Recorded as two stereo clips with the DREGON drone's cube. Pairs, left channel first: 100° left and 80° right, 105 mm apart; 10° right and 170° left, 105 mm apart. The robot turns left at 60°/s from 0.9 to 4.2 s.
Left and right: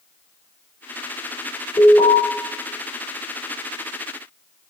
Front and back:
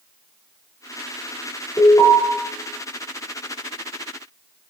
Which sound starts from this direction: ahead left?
An alarm, at 1.8 s.